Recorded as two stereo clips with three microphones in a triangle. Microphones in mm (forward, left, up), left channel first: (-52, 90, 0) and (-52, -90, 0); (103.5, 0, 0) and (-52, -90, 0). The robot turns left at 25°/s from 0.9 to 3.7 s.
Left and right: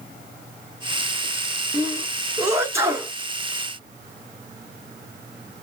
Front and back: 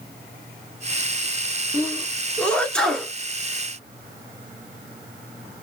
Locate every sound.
1.7 s a sneeze: 20° right, 1.1 m; by 3.1 s 55° right, 1.1 m